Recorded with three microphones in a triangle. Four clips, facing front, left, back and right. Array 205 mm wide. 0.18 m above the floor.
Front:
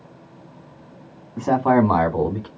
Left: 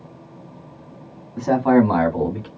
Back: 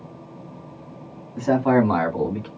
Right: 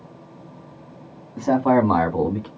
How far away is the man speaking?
About 1.2 m.